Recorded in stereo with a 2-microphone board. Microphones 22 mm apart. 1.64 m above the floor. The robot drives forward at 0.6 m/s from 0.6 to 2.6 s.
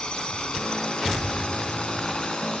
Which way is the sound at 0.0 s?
40° left (ahead or behind).